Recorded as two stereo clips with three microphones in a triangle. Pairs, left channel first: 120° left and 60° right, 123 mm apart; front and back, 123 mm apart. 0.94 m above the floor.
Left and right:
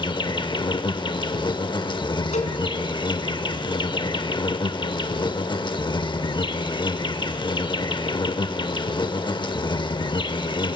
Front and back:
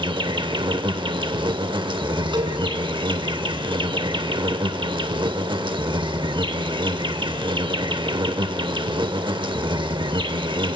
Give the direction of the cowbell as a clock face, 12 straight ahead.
8 o'clock.